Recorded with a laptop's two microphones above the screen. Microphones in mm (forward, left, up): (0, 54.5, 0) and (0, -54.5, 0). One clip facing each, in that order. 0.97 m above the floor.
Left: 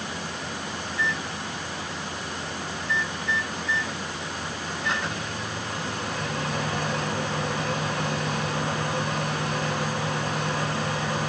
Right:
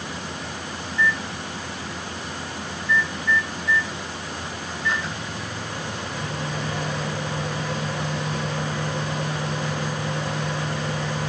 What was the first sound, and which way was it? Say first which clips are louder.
A microwave: right 6 dB; 75° left (ahead or behind).